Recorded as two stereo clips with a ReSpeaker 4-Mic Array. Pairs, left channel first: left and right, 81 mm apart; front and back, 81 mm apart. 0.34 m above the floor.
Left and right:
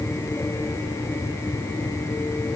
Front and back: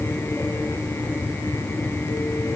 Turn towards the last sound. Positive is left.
No sound to turn to.